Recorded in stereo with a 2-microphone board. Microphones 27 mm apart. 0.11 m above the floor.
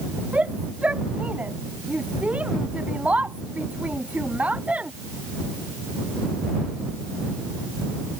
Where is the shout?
55° right (ahead or behind).